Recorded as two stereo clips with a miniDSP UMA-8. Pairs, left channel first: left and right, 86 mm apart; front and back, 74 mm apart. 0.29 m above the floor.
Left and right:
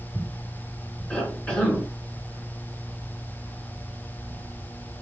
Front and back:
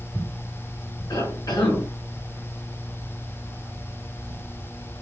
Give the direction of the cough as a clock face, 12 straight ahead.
11 o'clock.